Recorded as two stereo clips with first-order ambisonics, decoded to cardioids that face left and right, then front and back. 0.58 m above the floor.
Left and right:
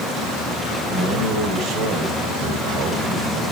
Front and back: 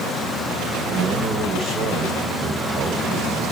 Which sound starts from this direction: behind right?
A man speaking, at 0.9 s.